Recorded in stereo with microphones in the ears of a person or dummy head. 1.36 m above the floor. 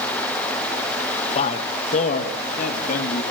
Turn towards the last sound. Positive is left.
turn(degrees=50)  # may be behind; listen again after turning